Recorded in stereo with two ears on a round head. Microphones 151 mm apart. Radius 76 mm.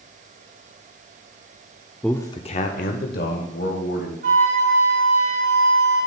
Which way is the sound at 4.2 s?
55° right (ahead or behind).